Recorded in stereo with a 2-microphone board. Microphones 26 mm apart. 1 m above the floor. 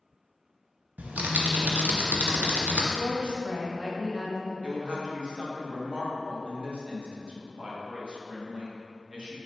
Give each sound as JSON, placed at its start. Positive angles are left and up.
{"t": 1.0, "sound": "typing on a keyboard", "side_deg": -85, "distance_m": 0.6}
{"t": 2.9, "sound": "a woman speaking", "side_deg": -35, "distance_m": 1.0}
{"t": 4.6, "sound": "a woman speaking", "side_deg": -40, "distance_m": 1.0}